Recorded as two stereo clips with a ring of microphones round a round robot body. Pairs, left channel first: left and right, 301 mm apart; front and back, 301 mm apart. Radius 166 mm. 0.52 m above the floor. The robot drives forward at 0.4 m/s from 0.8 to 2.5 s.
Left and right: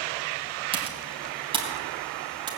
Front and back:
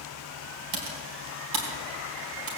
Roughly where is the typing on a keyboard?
Behind.